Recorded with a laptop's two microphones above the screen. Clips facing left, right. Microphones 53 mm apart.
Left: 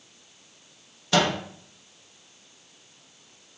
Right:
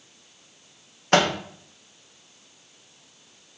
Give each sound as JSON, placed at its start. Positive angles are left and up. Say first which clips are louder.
{"t": 1.1, "sound": "a microwave", "louder": "right 3 dB", "side_deg": -45, "distance_m": 0.5}